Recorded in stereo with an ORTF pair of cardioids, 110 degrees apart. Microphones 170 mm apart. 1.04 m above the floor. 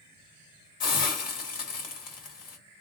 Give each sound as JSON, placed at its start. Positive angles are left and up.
{"t": 0.8, "sound": "a hiss", "azimuth_deg": 55, "distance_m": 1.8}